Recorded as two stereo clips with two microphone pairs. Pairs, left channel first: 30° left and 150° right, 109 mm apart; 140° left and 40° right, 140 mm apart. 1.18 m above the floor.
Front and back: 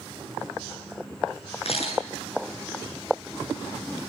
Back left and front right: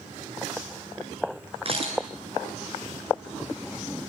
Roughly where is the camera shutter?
Ahead.